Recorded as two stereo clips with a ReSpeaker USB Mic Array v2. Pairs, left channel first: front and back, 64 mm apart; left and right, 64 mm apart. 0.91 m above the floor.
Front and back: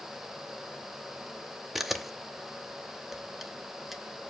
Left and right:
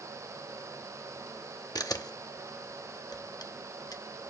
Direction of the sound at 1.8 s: 90° left.